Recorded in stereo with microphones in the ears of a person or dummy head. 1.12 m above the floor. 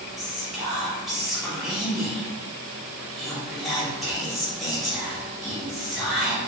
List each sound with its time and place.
0.2 s whispering: 5° right (ahead or behind), 0.8 m